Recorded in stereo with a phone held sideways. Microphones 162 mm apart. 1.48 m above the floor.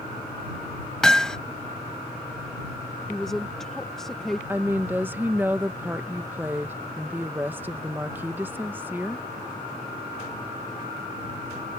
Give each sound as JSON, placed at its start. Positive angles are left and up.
{"t": 1.0, "sound": "hammering", "side_deg": 5}
{"t": 3.1, "sound": "a woman speaking", "side_deg": 0}
{"t": 4.5, "sound": "a woman speaking", "side_deg": -10}